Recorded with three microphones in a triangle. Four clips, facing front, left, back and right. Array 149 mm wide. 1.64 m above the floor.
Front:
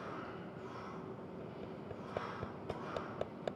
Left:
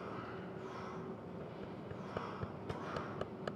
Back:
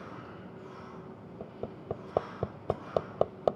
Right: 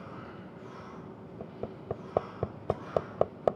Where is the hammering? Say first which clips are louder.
Right 6 dB, back 5 dB; 135° right.